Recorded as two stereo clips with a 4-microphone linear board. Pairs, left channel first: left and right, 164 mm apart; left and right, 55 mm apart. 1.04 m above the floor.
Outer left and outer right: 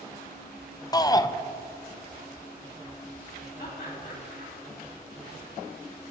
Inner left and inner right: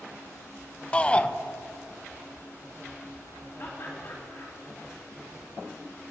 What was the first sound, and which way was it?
A shout, 25° left (ahead or behind).